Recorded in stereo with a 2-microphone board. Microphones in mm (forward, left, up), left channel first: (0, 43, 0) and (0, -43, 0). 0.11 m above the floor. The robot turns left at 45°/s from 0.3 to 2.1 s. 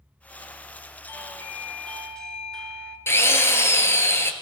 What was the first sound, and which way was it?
A doorbell, 25° left (ahead or behind).